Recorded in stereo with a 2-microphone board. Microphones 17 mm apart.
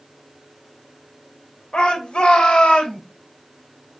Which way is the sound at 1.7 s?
60° left (ahead or behind).